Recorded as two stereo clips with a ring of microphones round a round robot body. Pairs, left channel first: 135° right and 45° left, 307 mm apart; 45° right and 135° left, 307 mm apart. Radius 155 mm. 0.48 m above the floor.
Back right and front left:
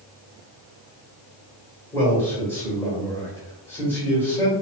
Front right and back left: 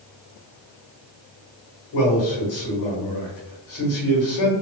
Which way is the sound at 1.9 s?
50° right.